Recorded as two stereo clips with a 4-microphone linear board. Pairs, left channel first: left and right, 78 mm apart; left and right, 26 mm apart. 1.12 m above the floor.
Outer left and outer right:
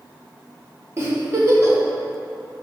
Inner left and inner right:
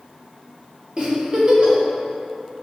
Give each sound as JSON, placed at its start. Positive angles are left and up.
{"t": 1.0, "sound": "a giggle", "side_deg": -35, "distance_m": 1.5}